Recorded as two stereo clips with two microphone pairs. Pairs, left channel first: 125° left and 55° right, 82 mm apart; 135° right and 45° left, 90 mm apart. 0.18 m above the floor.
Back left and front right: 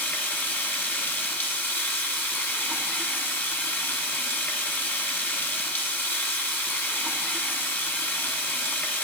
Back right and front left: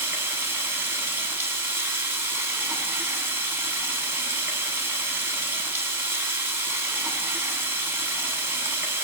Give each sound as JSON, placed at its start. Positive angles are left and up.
{"t": 0.0, "sound": "running water", "azimuth_deg": 85, "distance_m": 1.3}